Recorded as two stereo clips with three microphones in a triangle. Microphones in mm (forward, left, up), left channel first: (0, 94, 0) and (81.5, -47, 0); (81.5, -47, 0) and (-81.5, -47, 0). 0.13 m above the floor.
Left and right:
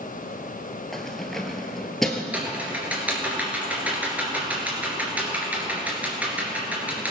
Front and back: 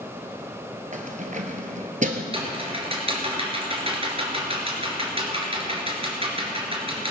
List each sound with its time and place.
0.9 s keys jangling: 155° right, 1.4 m
2.3 s typing on a keyboard: 140° right, 2.5 m